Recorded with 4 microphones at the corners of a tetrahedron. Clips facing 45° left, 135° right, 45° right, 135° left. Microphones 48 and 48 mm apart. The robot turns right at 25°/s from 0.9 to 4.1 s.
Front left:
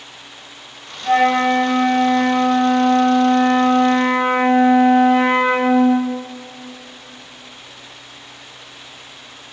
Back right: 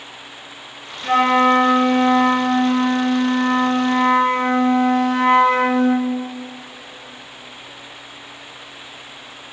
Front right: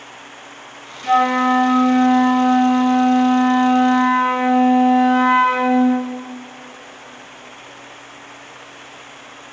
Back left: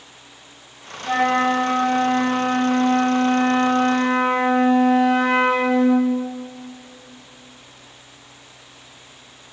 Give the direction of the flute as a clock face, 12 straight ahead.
3 o'clock.